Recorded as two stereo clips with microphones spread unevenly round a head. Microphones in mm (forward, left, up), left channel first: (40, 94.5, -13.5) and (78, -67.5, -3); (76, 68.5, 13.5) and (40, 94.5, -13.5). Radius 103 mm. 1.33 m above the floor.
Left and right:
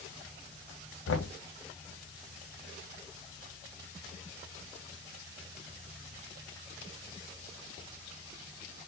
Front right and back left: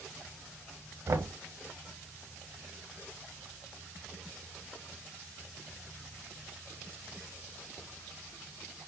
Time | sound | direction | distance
1.1 | knocking | 115° left | 0.9 m